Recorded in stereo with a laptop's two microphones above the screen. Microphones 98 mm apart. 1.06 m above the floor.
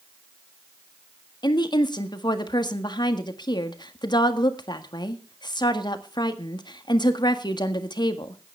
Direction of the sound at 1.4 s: 45° left (ahead or behind).